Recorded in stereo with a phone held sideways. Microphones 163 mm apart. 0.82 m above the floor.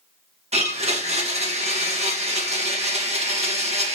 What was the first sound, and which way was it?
A blender, 40° right (ahead or behind).